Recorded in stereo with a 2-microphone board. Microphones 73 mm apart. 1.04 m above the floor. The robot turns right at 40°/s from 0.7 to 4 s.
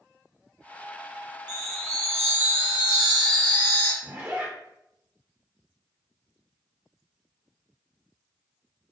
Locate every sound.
1.5 s a chime: 65° right, 0.6 m; by 3.9 s 30° left, 0.6 m
4.0 s a zipper: 25° right (ahead or behind), 0.7 m